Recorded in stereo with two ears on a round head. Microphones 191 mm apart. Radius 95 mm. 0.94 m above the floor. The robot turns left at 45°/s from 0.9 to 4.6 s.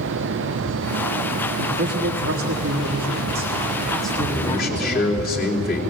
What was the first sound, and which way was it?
A man speaking, 70° right.